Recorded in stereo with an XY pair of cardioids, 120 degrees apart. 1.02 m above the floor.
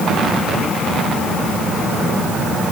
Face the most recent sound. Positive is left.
No sound to turn to.